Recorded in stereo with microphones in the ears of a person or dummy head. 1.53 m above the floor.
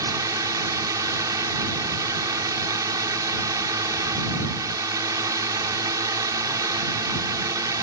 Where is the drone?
20° right (ahead or behind).